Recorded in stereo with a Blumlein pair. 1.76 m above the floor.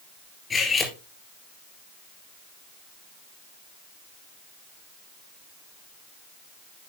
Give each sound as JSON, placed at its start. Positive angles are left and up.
{"t": 0.5, "sound": "cutlery clinking", "azimuth_deg": 15, "distance_m": 2.5}